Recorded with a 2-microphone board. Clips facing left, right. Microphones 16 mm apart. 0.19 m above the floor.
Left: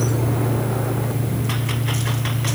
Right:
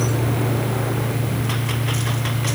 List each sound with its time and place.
Only background noise.